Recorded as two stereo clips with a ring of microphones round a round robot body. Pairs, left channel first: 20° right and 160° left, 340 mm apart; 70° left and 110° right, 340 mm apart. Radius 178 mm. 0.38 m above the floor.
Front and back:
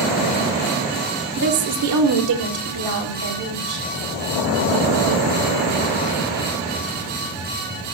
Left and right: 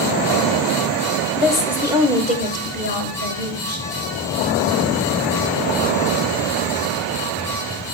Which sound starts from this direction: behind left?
A woman speaking, at 1.4 s.